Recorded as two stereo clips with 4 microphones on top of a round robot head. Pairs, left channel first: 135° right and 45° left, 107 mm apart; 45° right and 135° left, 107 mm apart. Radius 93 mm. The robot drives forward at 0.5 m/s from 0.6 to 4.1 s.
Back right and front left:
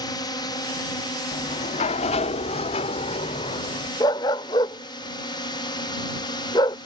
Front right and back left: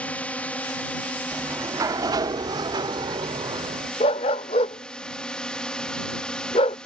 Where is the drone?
115° right; by 6.9 s 120° right.